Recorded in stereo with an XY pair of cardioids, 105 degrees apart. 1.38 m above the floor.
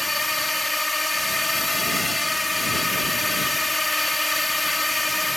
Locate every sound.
0.0 s a drone: 15° left